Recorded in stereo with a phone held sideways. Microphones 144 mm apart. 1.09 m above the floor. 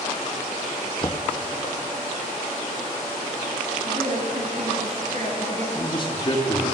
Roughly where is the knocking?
Left.